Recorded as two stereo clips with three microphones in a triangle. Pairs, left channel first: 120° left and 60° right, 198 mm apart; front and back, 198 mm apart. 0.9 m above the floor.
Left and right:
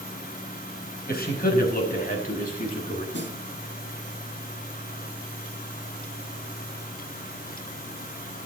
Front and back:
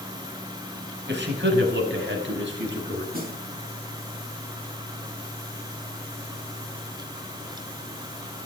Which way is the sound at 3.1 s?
140° left.